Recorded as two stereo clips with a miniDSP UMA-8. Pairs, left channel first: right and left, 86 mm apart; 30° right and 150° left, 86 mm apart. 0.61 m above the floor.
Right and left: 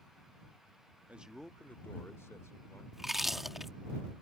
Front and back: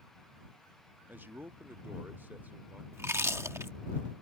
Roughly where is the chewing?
Behind.